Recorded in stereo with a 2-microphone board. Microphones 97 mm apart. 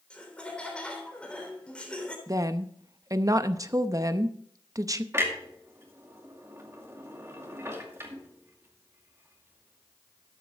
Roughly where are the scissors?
No scissors in this recording.